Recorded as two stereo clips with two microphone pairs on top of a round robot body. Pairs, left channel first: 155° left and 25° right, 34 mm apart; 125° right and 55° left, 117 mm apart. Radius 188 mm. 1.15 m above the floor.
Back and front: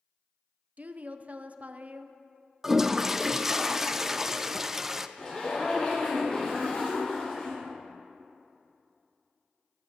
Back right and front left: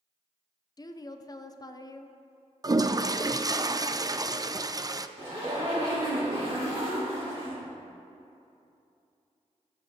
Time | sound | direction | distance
0.8 | a woman speaking | 70° right | 0.7 m
2.6 | a toilet flushing | 25° left | 0.6 m
5.2 | a zipper | 100° left | 2.5 m